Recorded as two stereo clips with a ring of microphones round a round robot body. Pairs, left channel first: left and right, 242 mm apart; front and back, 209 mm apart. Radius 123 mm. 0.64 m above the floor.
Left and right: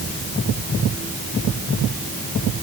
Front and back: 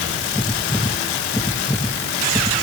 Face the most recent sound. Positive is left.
No sound to turn to.